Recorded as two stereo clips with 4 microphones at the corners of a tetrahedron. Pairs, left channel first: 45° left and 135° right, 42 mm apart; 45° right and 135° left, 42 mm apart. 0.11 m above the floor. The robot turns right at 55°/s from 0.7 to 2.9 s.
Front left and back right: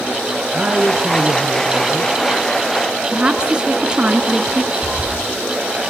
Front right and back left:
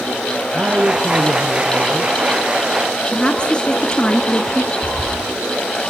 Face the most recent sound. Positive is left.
turn(degrees=-25)